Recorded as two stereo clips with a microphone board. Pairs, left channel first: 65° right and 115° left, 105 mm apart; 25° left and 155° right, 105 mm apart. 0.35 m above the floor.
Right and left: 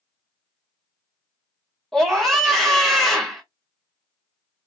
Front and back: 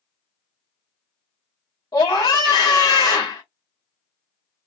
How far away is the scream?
About 1.0 m.